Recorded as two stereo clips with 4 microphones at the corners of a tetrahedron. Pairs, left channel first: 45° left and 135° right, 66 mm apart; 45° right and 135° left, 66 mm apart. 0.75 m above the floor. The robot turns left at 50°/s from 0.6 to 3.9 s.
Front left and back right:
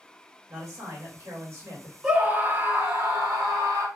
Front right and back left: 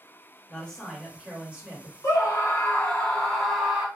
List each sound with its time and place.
0.5 s a man speaking: 115° right, 1.6 m; by 1.9 s 175° left, 1.6 m
2.0 s a scream: 65° right, 1.8 m; by 3.9 s 155° right, 1.8 m